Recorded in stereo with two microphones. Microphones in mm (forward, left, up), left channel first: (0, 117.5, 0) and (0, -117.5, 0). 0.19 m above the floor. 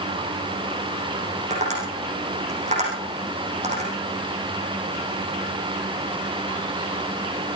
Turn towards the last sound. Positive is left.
turn(degrees=-30)  # may be behind; listen again after turning